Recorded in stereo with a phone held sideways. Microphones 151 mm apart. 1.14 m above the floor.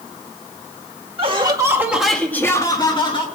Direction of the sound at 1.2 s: 40° right (ahead or behind).